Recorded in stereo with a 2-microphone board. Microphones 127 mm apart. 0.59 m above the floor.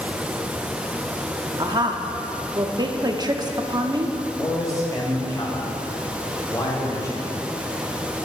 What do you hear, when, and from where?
1.6 s a woman speaking: 35° right (ahead or behind), 0.7 m
4.4 s a man speaking: 30° left (ahead or behind), 2.5 m